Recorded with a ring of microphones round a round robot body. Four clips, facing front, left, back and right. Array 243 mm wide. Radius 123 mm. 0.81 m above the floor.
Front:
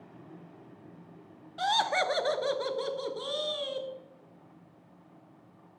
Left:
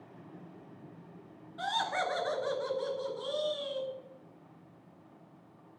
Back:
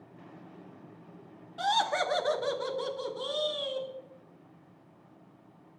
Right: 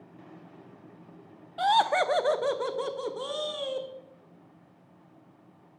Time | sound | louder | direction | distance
1.6 | laughter | right 10 dB, even | 80° right | 1.1 m